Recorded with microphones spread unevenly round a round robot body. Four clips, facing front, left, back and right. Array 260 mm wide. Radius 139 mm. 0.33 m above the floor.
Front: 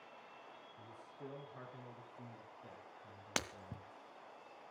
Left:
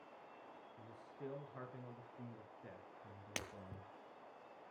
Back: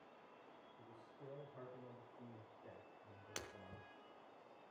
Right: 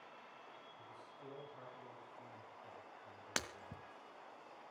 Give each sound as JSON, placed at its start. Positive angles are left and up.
{"t": 0.8, "sound": "a man speaking", "azimuth_deg": 50, "distance_m": 5.5}
{"t": 3.4, "sound": "breaking glass", "azimuth_deg": -15, "distance_m": 1.5}